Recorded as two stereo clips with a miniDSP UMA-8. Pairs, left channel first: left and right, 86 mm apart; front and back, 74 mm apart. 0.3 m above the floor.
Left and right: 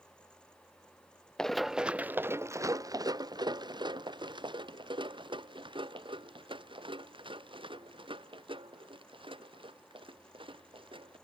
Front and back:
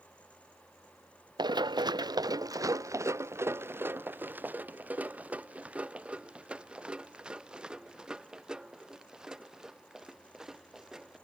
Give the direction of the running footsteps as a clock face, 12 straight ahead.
6 o'clock.